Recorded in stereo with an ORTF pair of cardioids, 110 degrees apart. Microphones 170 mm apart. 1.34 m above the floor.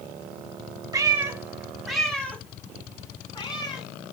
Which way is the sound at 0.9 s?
20° right.